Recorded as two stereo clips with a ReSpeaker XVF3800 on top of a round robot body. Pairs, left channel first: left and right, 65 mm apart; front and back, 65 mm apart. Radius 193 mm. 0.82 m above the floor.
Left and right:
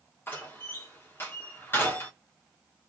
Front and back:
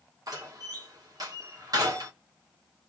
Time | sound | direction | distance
0.3 | a door slam | 150° left | 1.6 m